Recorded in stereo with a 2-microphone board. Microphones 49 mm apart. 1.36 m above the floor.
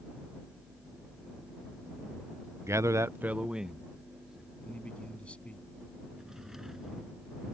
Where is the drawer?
10° right (ahead or behind).